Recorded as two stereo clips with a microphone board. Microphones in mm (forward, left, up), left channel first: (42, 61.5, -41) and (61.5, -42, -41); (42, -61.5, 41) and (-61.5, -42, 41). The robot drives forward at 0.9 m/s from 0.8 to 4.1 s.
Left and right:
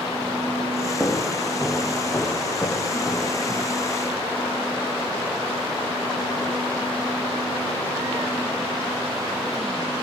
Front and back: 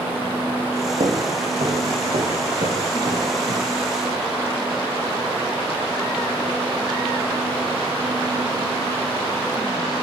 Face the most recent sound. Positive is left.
turn(degrees=-170)